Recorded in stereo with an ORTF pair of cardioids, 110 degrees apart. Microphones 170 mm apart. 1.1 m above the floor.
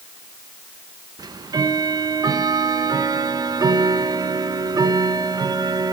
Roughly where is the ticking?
Ahead right.